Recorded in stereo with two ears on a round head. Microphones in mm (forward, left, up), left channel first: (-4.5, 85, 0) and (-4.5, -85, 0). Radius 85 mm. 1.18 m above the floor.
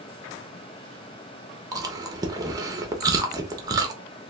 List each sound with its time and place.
1.7 s chewing: 20° right (ahead or behind), 0.6 m